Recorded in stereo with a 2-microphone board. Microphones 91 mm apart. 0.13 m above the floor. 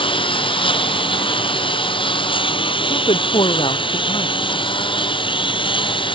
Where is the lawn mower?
70° left (ahead or behind); by 6.1 s 65° left (ahead or behind).